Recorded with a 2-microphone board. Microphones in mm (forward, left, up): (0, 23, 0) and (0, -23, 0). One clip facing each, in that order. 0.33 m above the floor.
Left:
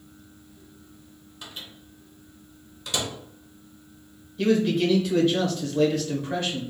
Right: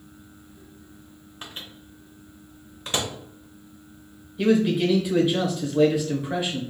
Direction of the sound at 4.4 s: 10° right (ahead or behind).